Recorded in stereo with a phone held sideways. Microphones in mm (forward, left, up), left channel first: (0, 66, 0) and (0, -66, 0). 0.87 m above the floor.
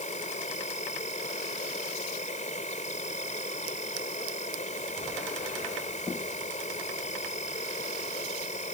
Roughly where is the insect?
Left.